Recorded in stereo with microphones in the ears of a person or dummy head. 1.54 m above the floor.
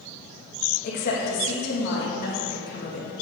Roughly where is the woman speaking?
Left.